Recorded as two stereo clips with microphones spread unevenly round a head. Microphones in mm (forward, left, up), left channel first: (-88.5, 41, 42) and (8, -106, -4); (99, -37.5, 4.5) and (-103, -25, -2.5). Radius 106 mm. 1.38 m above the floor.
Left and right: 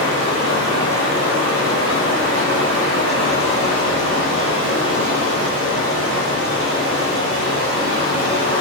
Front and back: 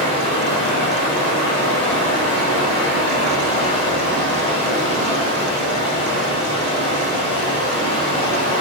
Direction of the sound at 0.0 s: 65° right.